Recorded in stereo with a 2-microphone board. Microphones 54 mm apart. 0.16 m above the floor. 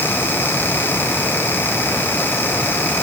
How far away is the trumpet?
I don't hear a trumpet.